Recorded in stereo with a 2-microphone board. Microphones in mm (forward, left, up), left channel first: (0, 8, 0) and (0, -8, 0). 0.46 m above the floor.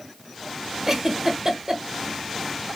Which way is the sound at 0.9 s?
25° right (ahead or behind).